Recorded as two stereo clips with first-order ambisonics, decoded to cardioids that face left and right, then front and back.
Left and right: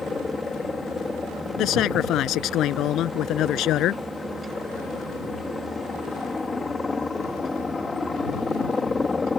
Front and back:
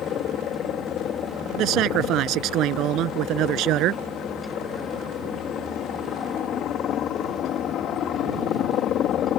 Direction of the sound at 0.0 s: 20° left.